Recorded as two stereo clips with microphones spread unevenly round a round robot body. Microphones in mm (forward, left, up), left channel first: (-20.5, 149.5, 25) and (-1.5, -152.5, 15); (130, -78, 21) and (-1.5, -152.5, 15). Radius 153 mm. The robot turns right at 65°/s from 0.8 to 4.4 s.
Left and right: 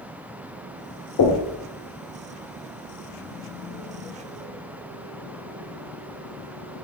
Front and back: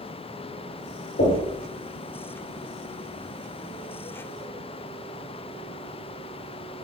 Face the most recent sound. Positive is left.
turn(degrees=-85)